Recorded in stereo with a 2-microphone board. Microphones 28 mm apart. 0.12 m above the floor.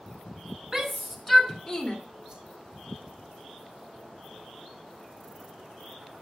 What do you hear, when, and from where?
0.7 s a shout: 15° right (ahead or behind), 1.0 m; by 2.0 s 30° left (ahead or behind), 1.1 m
2.3 s a whoosh: 30° right (ahead or behind), 1.1 m